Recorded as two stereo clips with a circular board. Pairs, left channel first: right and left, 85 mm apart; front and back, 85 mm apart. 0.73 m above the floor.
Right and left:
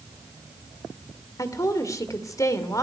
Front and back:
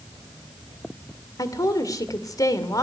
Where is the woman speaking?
45° right, 2 m.